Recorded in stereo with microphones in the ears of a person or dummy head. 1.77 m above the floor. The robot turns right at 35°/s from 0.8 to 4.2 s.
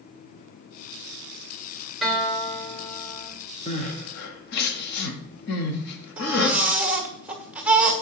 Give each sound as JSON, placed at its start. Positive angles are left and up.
{"t": 2.0, "sound": "a guitar", "azimuth_deg": 0, "distance_m": 2.5}
{"t": 3.7, "sound": "crying", "side_deg": 35, "distance_m": 1.2}
{"t": 6.2, "sound": "a baby crying", "side_deg": -10, "distance_m": 1.3}